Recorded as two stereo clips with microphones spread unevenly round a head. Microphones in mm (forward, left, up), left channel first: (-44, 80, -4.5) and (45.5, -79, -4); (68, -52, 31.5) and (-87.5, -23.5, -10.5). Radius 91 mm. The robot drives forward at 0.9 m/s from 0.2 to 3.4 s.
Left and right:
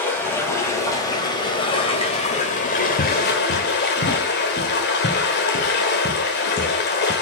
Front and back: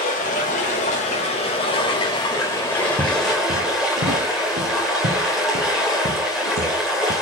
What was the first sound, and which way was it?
Running water, 40° left.